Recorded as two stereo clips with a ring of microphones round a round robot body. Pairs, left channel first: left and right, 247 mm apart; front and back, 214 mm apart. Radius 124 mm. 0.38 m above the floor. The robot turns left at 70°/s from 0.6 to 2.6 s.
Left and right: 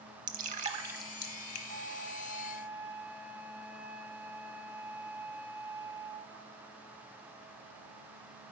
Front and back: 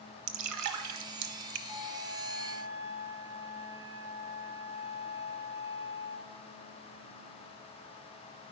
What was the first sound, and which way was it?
Dripping, 150° right.